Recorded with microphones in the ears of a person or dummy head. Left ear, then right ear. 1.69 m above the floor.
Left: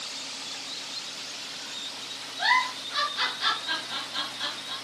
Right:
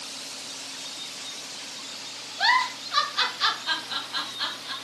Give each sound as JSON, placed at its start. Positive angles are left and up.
{"t": 2.4, "sound": "a giggle", "side_deg": -30, "distance_m": 2.5}